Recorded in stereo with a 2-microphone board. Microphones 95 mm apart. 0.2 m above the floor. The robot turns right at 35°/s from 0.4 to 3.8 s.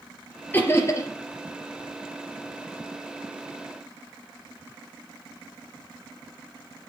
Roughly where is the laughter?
Left.